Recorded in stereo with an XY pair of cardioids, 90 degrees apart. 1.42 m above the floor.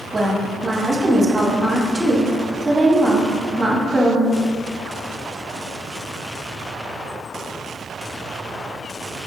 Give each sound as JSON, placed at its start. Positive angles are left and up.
{"t": 0.1, "sound": "a woman speaking", "azimuth_deg": -15, "distance_m": 1.1}